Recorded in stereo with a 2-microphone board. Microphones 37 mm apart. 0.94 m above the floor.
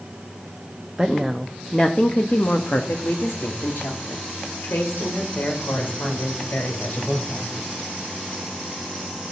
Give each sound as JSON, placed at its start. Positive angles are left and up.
{"t": 1.0, "sound": "a woman speaking", "side_deg": -5, "distance_m": 1.0}